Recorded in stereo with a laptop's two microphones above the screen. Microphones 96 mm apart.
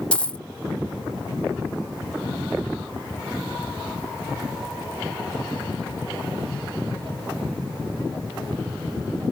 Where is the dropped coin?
10° left (ahead or behind).